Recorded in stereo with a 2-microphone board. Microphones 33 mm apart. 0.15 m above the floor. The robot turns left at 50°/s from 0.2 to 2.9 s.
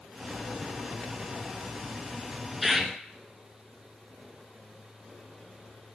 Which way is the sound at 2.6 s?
Centre (ahead or behind).